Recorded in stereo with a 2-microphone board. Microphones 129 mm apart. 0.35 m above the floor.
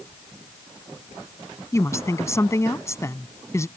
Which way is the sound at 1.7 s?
20° left (ahead or behind).